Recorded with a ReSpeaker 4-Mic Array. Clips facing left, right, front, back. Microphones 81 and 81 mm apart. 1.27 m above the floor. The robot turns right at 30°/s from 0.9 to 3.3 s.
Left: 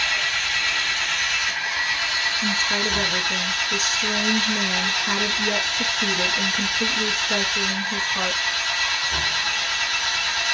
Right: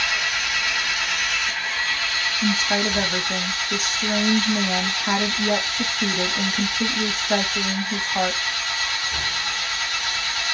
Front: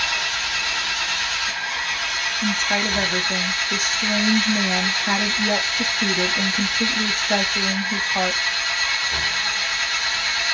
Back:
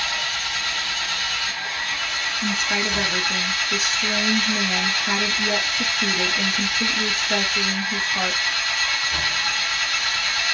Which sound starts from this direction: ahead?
An engine running, at 0.0 s.